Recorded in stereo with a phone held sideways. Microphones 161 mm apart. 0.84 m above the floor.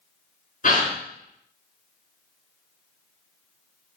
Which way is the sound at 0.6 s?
55° left (ahead or behind).